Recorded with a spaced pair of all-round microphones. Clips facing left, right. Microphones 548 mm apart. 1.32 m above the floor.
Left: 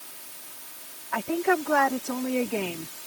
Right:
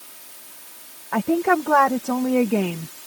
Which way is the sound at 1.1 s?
75° right (ahead or behind).